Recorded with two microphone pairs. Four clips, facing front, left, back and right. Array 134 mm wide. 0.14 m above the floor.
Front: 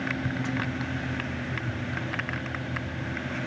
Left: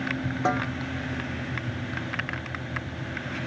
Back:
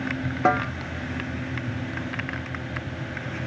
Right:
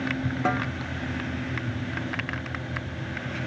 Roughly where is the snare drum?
Behind.